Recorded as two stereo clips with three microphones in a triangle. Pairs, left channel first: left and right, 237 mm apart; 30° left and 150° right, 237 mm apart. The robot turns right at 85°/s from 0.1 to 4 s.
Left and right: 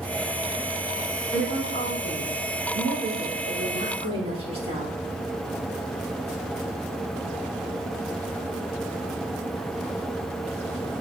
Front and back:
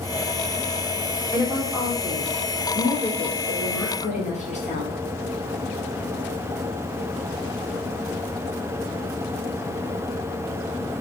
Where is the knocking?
No knocking in this recording.